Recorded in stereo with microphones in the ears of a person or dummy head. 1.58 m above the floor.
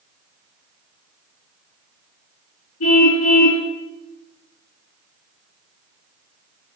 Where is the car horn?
80° left, 10 m.